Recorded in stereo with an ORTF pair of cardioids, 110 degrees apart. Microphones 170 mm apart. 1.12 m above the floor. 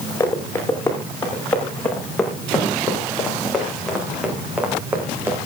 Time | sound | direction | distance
0.2 | running footsteps | 15° left | 8 m